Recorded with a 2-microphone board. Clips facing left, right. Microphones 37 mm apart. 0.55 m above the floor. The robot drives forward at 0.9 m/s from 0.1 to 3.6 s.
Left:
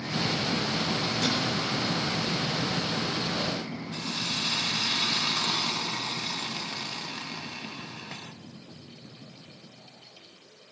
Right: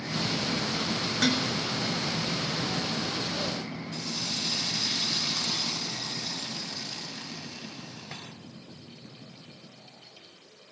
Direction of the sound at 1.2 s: 85° right.